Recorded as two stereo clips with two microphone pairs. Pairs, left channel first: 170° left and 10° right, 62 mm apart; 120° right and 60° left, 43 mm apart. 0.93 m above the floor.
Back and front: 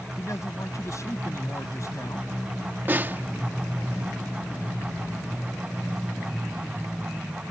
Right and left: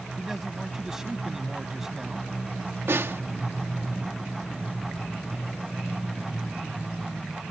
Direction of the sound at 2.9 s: 50° left.